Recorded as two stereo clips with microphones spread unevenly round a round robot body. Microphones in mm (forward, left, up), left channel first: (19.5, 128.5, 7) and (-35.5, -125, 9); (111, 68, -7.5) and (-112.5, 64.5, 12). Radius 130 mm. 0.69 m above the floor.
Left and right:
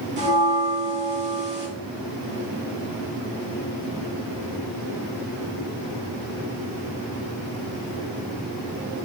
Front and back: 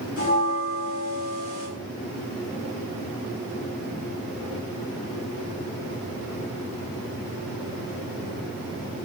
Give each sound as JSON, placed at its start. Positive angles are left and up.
{"t": 0.2, "sound": "a bell", "azimuth_deg": -55, "distance_m": 1.0}